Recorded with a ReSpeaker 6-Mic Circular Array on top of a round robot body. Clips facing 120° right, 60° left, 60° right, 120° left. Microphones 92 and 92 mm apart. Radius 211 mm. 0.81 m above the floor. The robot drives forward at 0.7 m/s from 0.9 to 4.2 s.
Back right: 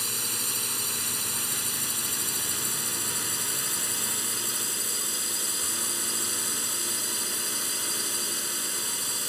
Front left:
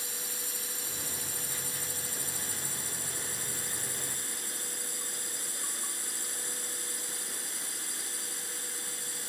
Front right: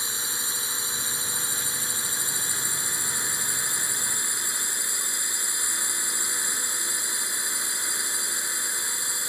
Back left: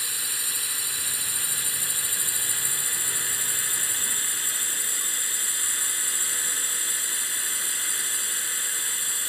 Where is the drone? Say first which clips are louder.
Back right 6 dB, front right 3 dB; 125° right; by 9.3 s 130° right.